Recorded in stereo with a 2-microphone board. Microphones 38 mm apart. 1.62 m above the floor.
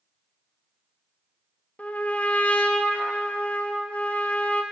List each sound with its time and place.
1.8 s a trumpet: 40° left (ahead or behind), 1.4 m